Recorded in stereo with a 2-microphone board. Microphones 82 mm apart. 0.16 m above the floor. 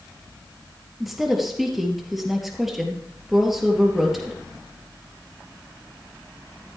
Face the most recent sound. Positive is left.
turn(degrees=0)  # may be behind; listen again after turning